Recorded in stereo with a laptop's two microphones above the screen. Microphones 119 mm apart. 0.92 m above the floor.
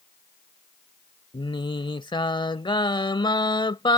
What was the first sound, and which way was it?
Singing, 40° left (ahead or behind).